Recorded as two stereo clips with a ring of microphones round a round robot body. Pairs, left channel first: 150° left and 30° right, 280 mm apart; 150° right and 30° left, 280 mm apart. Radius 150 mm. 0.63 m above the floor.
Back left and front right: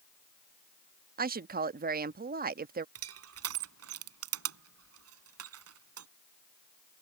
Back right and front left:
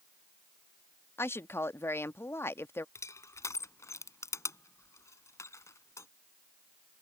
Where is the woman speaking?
70° right.